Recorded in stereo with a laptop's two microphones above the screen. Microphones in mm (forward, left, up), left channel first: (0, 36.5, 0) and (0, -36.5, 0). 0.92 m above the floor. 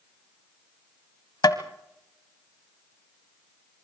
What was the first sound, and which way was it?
Tapping, 60° left (ahead or behind).